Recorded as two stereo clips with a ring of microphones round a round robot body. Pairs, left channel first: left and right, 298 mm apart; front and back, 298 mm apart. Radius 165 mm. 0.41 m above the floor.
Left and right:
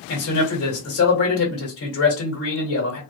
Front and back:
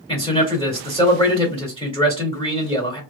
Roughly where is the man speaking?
Ahead left.